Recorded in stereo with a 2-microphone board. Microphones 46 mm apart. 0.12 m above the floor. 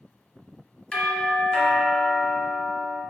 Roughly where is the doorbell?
Centre.